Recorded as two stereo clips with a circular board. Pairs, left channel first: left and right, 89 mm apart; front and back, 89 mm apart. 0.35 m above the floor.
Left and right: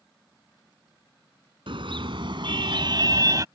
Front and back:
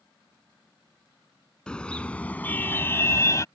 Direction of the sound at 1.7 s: 80° right.